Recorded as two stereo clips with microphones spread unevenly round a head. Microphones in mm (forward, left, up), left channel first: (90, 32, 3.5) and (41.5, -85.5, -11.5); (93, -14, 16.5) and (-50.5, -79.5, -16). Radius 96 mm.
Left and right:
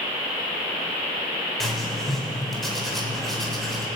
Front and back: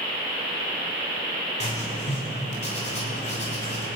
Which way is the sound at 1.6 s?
20° right.